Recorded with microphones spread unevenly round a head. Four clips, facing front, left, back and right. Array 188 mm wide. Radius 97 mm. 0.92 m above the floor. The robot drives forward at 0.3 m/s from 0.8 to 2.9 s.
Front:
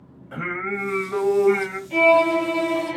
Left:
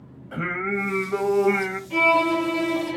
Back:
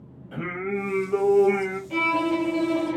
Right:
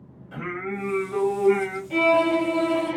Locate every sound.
0.3 s singing: 40° left, 1.1 m; by 1.8 s 60° left, 1.0 m
1.9 s a violin: 130° right, 1.2 m; by 3.0 s 140° right, 1.4 m